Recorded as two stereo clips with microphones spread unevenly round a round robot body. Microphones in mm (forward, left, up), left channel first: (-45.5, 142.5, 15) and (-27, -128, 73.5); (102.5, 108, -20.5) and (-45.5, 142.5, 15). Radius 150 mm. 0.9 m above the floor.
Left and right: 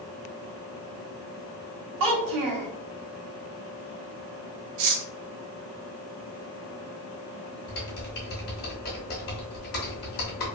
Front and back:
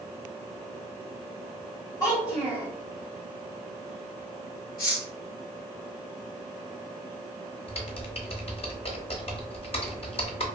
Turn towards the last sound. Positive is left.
turn(degrees=35)